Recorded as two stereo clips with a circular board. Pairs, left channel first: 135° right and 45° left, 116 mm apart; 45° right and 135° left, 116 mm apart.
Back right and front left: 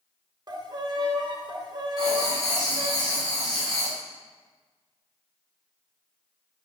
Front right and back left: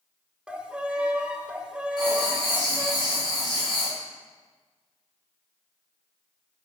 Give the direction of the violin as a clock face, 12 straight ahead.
10 o'clock.